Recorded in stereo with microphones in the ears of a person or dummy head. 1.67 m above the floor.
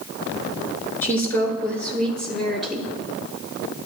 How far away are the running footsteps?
I don't hear running footsteps.